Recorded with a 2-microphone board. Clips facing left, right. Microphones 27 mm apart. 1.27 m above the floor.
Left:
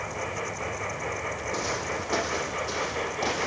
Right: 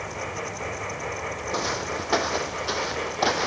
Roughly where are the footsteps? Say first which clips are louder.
Right 3 dB; right.